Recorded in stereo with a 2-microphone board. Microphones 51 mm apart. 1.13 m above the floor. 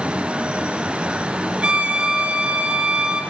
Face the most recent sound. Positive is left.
turn(degrees=-25)  # may be behind; listen again after turning